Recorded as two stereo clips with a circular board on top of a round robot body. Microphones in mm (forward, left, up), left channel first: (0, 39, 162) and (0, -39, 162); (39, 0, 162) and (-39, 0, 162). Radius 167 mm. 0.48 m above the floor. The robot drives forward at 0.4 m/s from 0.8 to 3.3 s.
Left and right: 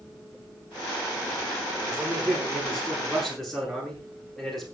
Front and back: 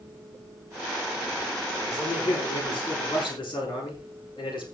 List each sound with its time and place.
1.8 s a man speaking: straight ahead, 8 m